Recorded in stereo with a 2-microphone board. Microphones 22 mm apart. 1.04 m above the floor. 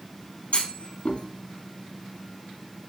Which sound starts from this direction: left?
A clunk, at 0.5 s.